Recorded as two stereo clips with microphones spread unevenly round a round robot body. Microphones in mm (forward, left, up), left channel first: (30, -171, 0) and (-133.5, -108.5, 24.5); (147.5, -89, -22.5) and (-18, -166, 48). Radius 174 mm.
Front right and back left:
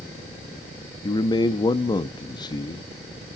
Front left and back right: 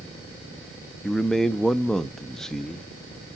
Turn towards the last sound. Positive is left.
turn(degrees=-20)